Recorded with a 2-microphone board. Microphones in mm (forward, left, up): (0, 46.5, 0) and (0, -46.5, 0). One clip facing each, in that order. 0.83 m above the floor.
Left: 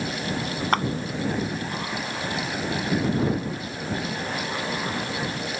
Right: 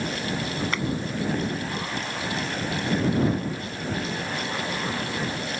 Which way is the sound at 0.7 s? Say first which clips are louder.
Left 10 dB; 50° left (ahead or behind).